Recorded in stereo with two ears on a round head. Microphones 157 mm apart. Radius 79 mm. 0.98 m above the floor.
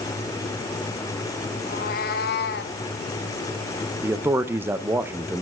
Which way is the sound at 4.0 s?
10° right (ahead or behind).